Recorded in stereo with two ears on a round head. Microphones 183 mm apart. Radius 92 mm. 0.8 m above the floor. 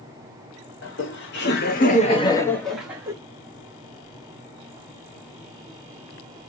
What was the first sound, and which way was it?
Laughter, 65° left (ahead or behind).